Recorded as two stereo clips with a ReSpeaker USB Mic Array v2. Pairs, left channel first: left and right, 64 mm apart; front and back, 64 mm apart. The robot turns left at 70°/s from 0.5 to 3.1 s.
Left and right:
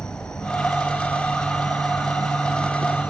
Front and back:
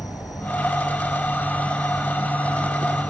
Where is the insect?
10° left; by 3.1 s 170° right.